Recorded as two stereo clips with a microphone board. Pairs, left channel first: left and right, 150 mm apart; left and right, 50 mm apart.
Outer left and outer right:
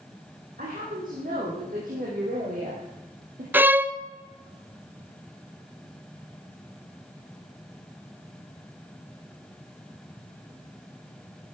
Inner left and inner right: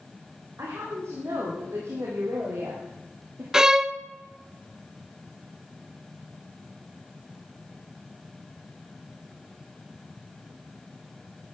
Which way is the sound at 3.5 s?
15° right (ahead or behind).